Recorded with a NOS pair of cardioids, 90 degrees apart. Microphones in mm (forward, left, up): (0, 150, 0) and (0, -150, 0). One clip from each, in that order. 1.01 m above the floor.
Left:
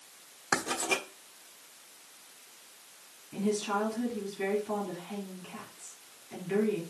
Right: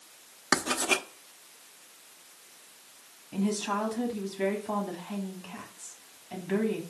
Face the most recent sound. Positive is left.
turn(degrees=-35)